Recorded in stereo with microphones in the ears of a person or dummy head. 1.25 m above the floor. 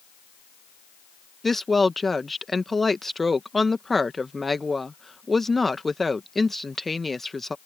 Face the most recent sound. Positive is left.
turn(degrees=5)  # may be behind; listen again after turning